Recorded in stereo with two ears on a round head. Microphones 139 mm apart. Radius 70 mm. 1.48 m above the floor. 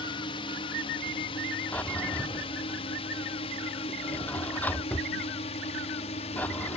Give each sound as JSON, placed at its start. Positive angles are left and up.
{"t": 0.0, "sound": "a drone", "side_deg": 30}
{"t": 1.7, "sound": "a drawer", "side_deg": 10}